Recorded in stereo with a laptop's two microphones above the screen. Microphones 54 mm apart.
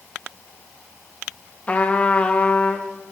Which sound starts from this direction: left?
A trumpet, at 1.7 s.